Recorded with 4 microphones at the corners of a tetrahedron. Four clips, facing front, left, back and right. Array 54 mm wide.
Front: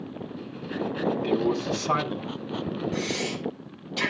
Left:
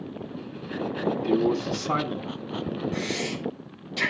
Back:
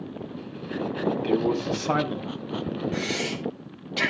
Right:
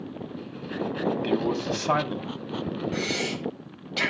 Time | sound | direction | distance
1.2 | a man speaking | 115° right | 5 m
2.9 | breathing | 130° right | 5.5 m